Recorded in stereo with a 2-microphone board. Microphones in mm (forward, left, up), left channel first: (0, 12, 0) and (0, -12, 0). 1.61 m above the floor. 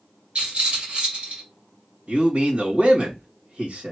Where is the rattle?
55° right (ahead or behind), 2.5 m.